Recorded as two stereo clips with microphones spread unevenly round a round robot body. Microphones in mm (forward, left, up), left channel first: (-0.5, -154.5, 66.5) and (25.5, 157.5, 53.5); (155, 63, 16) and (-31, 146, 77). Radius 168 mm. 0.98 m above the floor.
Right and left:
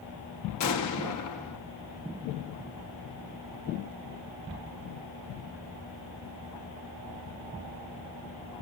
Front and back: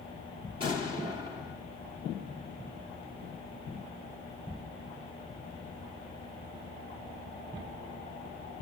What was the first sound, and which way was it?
An explosion, 135° right.